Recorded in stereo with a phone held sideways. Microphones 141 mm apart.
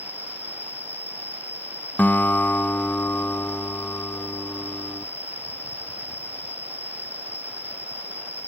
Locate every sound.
0.0 s an insect: 15° left (ahead or behind)
2.0 s a guitar: 10° left (ahead or behind)